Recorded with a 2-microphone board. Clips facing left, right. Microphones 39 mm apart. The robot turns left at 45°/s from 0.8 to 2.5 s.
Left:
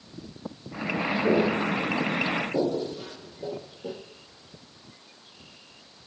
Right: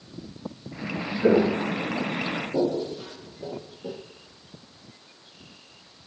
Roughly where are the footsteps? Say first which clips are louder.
Right 4 dB; right.